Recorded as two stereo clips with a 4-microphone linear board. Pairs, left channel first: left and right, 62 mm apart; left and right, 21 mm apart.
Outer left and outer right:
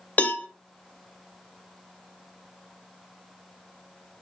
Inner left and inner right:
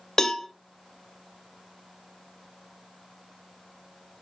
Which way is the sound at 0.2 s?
25° left (ahead or behind).